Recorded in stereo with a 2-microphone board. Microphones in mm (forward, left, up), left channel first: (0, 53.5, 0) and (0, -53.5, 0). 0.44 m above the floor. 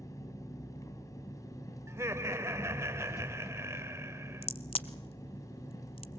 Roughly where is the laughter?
Right.